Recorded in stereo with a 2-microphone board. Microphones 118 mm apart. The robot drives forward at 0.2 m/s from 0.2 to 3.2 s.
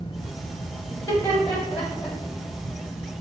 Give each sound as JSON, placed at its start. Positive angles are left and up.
{"t": 0.9, "sound": "laughter", "side_deg": 20, "distance_m": 1.0}